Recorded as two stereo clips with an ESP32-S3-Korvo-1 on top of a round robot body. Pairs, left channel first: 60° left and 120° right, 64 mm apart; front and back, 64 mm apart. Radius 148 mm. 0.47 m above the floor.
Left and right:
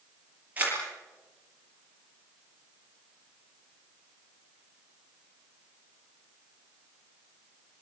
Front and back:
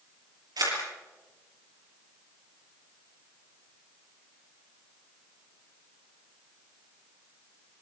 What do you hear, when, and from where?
0.6 s a camera shutter: 175° left, 7.5 m